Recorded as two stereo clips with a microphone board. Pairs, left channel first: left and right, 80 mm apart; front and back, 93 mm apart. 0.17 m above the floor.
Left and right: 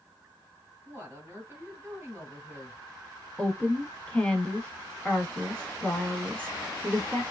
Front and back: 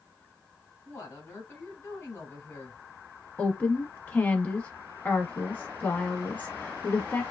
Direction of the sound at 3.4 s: 35° left.